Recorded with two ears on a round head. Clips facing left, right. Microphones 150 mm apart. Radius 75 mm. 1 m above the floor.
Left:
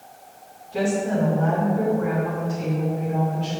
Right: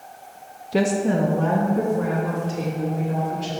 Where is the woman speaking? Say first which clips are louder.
Right 2 dB; 70° right (ahead or behind), 0.8 m; by 3.6 s 85° right, 3.5 m.